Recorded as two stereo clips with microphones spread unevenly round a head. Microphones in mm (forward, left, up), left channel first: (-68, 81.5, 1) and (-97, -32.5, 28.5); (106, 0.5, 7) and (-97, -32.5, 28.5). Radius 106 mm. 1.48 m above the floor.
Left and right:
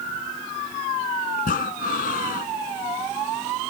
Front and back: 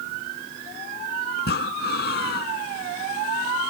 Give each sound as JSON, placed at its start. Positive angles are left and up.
{"t": 1.4, "sound": "breathing", "azimuth_deg": 55}